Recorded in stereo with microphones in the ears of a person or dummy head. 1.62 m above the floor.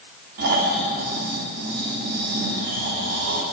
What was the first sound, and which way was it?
Snoring, 45° right (ahead or behind).